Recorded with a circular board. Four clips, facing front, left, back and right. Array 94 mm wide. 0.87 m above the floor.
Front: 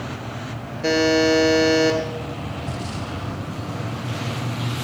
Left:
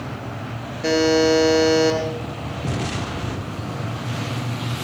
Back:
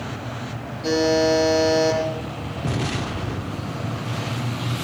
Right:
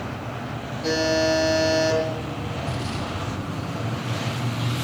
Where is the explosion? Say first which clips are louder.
Left 6 dB, back 4 dB; 145° left, 0.8 m.